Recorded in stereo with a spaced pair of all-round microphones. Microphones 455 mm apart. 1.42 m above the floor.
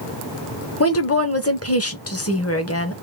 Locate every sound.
0.8 s a woman speaking: 30° left (ahead or behind), 0.9 m